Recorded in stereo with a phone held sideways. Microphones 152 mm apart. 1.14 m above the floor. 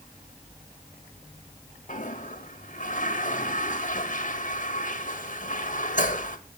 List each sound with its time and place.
1.9 s a toilet flushing: 55° left (ahead or behind), 1.8 m